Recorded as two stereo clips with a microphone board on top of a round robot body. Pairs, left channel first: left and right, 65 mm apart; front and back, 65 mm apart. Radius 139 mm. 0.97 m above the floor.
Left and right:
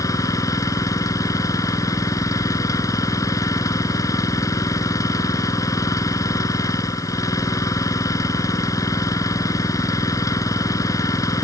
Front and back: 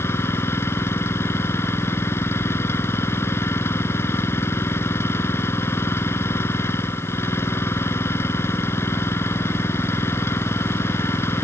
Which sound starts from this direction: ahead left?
An engine running, at 0.0 s.